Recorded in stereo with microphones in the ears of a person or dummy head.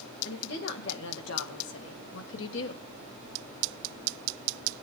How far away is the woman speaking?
About 2.5 m.